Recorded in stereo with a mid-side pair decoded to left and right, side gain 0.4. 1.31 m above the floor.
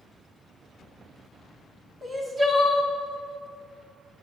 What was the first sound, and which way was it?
Crying, 45° right.